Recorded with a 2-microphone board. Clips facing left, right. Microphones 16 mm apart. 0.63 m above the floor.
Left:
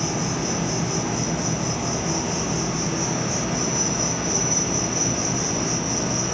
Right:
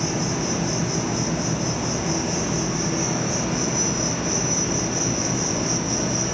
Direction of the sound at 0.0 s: Centre (ahead or behind).